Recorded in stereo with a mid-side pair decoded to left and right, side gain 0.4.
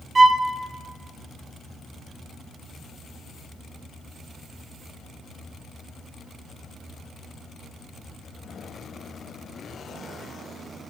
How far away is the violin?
About 0.8 m.